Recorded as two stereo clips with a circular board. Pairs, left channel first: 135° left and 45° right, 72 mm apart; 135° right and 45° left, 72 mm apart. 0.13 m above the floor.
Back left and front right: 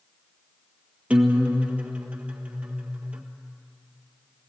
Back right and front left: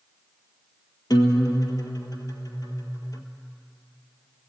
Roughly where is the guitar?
Behind right.